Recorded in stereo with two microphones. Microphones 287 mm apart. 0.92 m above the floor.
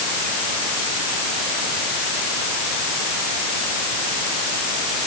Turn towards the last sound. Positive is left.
No sound to turn to.